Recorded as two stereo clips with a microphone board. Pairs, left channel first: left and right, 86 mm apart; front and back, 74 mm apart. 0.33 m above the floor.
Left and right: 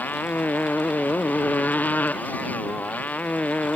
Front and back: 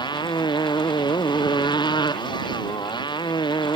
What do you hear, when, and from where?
0.0 s a motorcycle: 20° left; by 3.8 s 15° left